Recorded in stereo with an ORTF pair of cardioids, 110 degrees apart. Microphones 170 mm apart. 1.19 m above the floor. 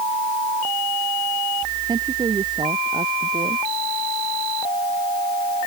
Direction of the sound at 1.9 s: 25° right.